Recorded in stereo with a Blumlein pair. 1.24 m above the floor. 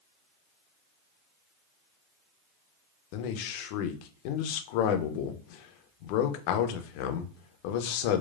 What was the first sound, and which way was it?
A man speaking, 45° left.